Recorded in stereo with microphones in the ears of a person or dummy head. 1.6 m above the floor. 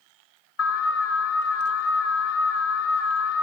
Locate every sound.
0.6 s an alarm: 80° left, 6.5 m